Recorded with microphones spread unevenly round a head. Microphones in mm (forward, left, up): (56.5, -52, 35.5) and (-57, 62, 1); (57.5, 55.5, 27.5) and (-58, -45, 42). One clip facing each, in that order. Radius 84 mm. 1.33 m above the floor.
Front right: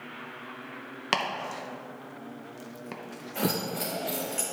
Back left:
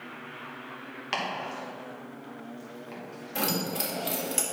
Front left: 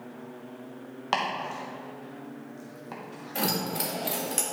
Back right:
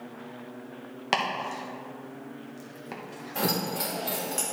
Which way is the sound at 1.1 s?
65° right.